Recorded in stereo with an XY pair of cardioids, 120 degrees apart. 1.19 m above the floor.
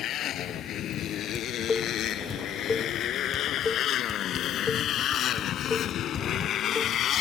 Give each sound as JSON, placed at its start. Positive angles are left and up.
{"t": 0.0, "sound": "a motorcycle", "azimuth_deg": 60}
{"t": 1.4, "sound": "dishes clattering", "azimuth_deg": 25}